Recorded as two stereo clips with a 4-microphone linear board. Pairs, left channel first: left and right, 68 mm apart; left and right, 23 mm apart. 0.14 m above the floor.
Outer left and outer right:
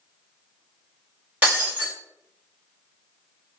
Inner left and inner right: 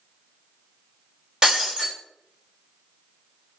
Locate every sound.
1.4 s breaking glass: 25° right (ahead or behind), 1.9 m